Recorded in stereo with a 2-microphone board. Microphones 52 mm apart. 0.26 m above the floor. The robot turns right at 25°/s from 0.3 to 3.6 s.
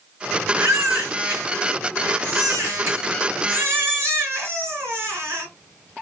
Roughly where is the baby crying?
Behind right.